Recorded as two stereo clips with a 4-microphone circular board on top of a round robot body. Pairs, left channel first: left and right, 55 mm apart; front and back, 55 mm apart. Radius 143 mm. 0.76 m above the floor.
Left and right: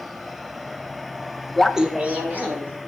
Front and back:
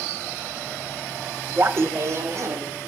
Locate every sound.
1.6 s laughter: 165° left, 0.5 m; by 2.9 s 145° right, 1.7 m